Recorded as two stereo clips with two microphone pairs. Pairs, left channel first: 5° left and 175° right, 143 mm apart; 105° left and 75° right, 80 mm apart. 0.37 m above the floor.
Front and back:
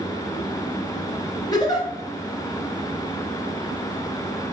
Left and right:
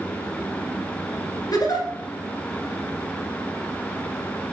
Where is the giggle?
65° left, 2.0 m.